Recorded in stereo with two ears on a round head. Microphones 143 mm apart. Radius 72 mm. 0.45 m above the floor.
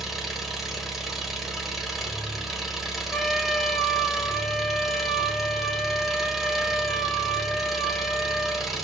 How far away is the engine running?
About 1.3 m.